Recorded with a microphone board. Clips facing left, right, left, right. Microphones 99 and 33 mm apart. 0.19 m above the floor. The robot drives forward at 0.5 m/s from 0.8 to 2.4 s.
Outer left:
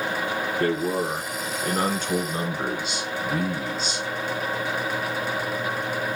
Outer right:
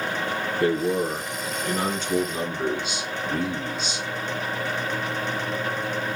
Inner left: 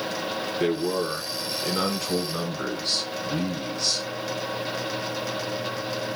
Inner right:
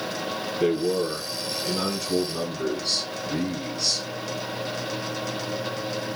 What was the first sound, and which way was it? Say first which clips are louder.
A man speaking: outer right 3 dB, inner right 2 dB; 45° left (ahead or behind).